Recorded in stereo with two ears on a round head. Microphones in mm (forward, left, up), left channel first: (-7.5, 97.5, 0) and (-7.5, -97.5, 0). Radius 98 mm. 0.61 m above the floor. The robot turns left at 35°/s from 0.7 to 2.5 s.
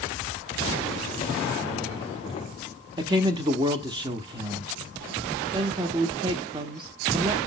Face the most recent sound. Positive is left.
turn(degrees=-25)  # may be behind; listen again after turning